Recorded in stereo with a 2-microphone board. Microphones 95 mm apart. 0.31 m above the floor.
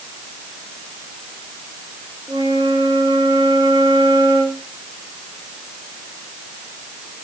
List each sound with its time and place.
2.3 s a flute: 45° right (ahead or behind), 4.5 m